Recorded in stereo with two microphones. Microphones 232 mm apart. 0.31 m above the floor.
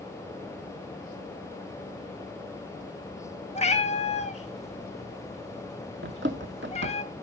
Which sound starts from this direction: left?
A cat meowing, at 3.5 s.